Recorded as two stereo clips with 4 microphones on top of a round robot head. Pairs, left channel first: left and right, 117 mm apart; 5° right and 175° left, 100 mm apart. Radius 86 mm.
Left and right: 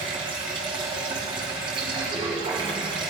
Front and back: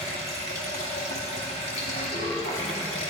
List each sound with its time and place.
0.0 s running water: 35° right, 2.5 m